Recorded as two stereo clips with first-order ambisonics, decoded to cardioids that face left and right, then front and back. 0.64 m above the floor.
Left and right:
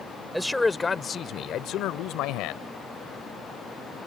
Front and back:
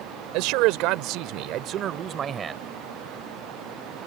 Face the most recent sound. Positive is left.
turn(degrees=110)